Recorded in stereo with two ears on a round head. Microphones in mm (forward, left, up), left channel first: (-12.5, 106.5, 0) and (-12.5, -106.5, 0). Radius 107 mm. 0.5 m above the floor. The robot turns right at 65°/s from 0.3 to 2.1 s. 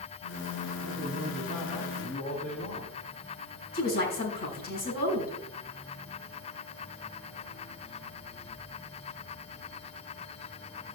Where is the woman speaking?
40° left (ahead or behind), 4 m.